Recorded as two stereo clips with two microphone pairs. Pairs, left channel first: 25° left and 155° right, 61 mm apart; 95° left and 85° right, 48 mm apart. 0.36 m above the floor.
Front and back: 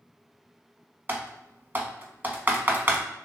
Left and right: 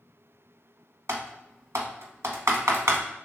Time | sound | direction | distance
1.1 | typing on a keyboard | 95° right | 0.7 m